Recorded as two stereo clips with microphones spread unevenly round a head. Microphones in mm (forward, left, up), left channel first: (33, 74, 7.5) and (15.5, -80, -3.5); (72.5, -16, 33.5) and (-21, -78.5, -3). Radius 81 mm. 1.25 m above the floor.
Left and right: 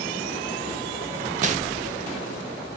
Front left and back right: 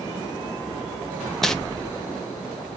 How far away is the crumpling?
About 0.8 m.